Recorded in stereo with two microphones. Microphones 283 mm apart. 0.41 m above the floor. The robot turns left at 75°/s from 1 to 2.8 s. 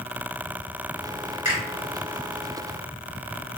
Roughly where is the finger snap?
Left.